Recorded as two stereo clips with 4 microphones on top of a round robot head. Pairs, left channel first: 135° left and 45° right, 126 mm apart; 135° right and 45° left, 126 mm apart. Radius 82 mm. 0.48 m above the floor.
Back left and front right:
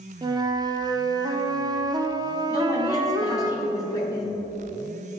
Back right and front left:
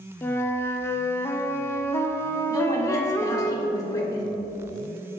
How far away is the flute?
About 0.6 m.